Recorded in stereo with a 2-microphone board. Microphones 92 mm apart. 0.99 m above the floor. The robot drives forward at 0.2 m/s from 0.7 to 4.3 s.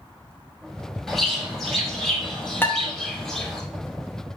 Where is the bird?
5° left (ahead or behind), 1.3 m.